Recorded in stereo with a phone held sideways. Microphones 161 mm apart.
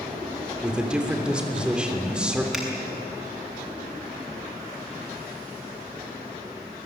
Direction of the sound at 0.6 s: 5° right (ahead or behind).